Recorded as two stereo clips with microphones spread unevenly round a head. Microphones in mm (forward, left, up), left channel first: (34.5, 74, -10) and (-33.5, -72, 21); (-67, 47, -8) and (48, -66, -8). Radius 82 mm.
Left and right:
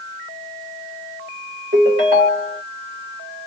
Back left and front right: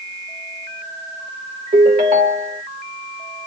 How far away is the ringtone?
About 1.4 m.